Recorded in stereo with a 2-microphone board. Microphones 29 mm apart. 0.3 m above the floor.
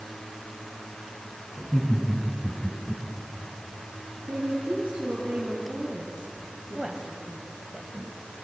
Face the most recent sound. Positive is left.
turn(degrees=-25)  # may be behind; listen again after turning